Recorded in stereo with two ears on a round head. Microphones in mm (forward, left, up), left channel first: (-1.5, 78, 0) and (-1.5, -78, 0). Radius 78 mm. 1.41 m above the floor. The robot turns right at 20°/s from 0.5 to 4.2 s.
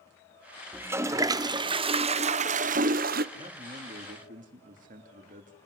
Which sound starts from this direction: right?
A man speaking, at 3.4 s.